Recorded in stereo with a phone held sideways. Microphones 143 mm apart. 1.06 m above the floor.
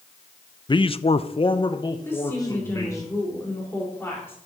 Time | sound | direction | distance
0.7 | a man speaking | 30° left (ahead or behind) | 0.5 m
2.0 | a woman speaking | 15° left (ahead or behind) | 4.5 m